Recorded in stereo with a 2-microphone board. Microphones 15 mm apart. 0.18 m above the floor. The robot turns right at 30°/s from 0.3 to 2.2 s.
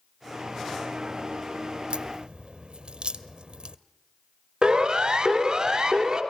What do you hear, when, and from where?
1.9 s a crack: 80° right, 1.1 m; by 3.8 s 85° right, 1.1 m
4.6 s a siren: 50° right (ahead or behind), 3 m; by 6.2 s 40° right (ahead or behind), 3.5 m